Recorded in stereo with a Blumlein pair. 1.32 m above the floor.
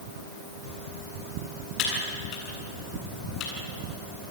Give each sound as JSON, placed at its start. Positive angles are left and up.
{"t": 1.8, "sound": "typing on a keyboard", "azimuth_deg": 35, "distance_m": 9.0}